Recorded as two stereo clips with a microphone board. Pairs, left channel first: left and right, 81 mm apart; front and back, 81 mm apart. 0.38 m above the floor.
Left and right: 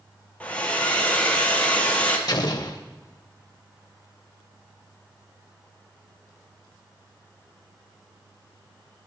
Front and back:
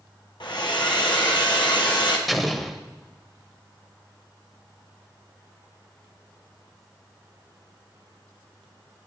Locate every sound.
0.4 s a hair dryer: 15° left, 1.7 m
2.3 s an explosion: 90° left, 0.7 m